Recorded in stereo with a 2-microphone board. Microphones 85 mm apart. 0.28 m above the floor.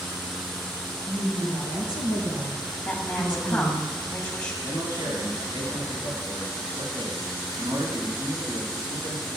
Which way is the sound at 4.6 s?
60° right (ahead or behind).